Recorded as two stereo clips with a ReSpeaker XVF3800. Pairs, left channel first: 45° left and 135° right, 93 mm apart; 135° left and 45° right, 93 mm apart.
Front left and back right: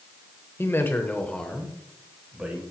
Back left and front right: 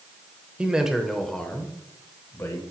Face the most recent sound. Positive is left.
turn(degrees=160)